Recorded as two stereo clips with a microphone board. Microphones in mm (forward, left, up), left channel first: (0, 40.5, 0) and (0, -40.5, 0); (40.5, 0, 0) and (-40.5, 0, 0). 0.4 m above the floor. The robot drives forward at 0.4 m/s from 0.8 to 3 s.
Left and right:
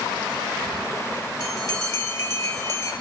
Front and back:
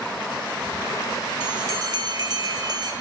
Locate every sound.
1.4 s a bell: 135° left, 3 m; by 2.9 s 145° left, 3.5 m